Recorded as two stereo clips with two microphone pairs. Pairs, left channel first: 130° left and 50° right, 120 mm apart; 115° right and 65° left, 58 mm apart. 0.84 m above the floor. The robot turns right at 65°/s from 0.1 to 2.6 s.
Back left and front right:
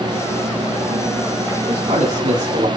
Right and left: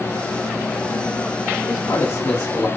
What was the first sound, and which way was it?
A man speaking, 95° right.